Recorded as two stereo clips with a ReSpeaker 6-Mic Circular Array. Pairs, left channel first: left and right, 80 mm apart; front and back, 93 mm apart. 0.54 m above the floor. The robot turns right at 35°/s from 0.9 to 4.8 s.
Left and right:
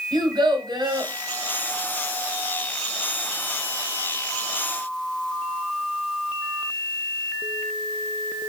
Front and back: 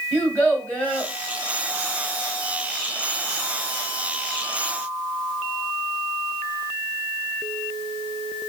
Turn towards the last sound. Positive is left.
turn(degrees=60)